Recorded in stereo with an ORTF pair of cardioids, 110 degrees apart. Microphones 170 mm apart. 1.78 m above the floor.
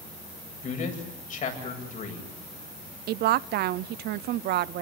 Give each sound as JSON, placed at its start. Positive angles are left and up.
{"t": 0.6, "sound": "a man speaking", "azimuth_deg": 50, "distance_m": 8.5}
{"t": 3.1, "sound": "a woman speaking", "azimuth_deg": -70, "distance_m": 0.8}